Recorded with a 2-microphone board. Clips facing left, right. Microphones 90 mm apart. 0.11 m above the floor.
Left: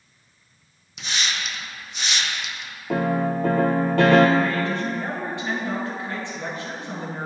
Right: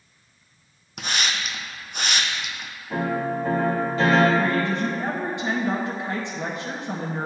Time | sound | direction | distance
1.0 | a hiss | 55° right (ahead or behind) | 0.8 m
2.9 | a piano | 65° left (ahead or behind) | 0.9 m
4.4 | a woman speaking | 20° right (ahead or behind) | 1.3 m